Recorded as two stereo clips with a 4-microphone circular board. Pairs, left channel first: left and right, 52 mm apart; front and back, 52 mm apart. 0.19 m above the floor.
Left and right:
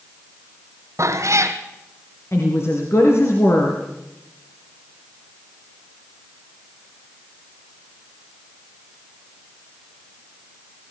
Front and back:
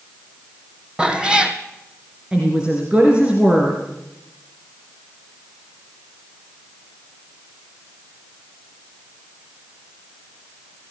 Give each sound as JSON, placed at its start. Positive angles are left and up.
{"t": 1.0, "sound": "a cat meowing", "azimuth_deg": -110, "distance_m": 1.8}
{"t": 2.3, "sound": "a woman speaking", "azimuth_deg": 115, "distance_m": 3.0}